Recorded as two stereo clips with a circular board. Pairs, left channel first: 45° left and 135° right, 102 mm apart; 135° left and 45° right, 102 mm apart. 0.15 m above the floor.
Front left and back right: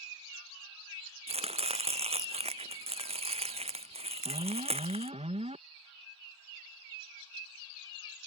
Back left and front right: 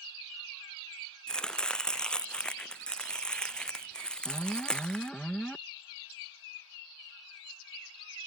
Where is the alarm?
145° right.